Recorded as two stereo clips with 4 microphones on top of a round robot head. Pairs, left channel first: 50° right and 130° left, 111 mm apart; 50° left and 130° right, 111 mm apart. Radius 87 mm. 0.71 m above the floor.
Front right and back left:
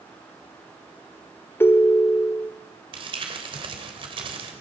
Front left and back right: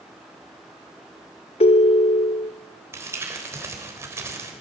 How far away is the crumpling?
About 4 m.